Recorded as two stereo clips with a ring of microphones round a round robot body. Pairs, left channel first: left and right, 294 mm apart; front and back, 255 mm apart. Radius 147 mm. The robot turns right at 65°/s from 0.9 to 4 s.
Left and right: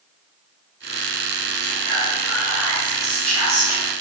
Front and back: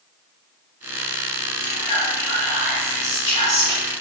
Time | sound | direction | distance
1.6 | whispering | 55° right | 1.8 m